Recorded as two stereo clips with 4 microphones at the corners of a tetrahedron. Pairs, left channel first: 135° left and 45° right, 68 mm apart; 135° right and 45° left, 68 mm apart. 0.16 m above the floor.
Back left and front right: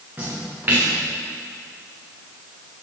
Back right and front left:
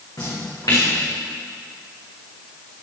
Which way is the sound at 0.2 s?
110° right.